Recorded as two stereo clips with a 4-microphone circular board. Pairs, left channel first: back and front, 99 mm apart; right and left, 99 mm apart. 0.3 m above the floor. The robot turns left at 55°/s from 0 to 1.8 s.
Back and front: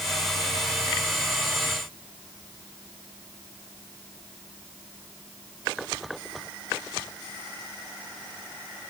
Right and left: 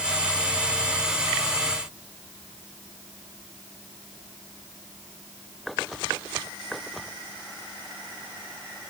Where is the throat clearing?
I don't hear throat clearing.